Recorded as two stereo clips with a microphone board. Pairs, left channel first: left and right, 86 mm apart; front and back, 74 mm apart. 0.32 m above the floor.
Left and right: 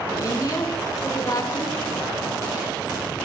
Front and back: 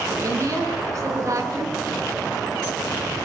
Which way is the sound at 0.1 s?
135° left.